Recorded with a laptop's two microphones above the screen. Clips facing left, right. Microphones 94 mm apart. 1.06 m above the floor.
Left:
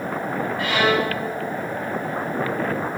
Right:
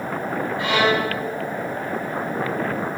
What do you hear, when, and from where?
0.6 s a violin: 30° right (ahead or behind), 5 m